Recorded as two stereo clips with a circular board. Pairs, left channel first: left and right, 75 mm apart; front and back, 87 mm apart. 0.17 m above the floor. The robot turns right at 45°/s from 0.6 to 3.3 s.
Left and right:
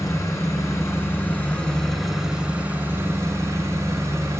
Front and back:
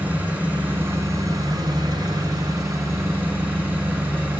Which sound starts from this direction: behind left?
An engine running, at 0.0 s.